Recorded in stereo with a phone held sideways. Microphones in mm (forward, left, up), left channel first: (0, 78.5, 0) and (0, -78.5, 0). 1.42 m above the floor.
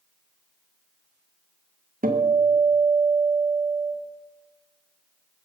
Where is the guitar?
60° right (ahead or behind), 1.6 m.